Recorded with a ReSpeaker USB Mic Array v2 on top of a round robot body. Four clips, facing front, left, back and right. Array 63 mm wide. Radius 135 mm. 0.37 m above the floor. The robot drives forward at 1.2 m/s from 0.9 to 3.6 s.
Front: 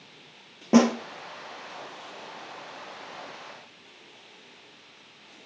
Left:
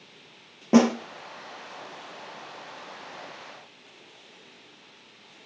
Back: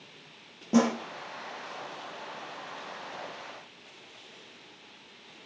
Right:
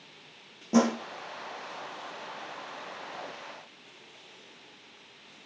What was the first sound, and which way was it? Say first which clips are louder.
A snare drum: left 5 dB, front 5 dB; 50° left.